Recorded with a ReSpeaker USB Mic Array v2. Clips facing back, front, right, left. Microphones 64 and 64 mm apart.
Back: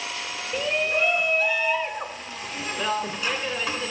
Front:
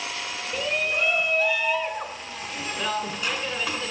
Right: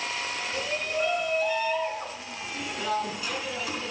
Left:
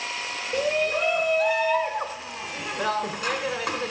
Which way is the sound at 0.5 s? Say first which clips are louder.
Back 2 dB, left 8 dB; 90° left.